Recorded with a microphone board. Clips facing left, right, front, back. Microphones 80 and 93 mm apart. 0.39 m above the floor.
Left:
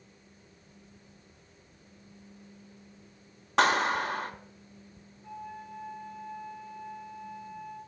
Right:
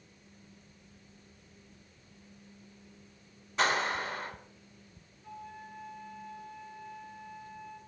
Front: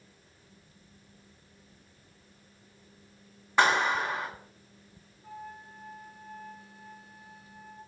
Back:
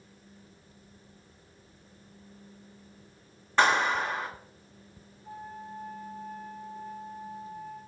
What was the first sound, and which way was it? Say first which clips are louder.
A clap: left 5 dB, even; 80° left.